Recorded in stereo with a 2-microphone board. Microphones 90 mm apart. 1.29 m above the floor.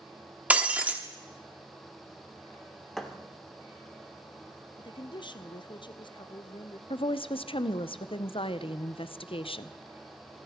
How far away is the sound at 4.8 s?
About 0.7 m.